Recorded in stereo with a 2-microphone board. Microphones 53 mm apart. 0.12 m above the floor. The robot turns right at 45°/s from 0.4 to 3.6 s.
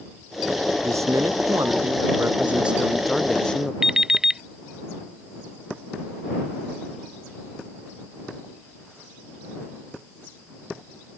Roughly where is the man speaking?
Right.